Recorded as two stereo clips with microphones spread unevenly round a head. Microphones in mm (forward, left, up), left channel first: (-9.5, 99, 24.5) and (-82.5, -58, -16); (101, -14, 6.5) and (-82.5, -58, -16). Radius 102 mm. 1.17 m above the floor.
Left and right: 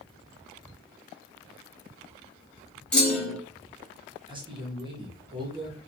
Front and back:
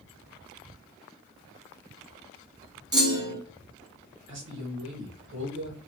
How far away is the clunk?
About 1.1 m.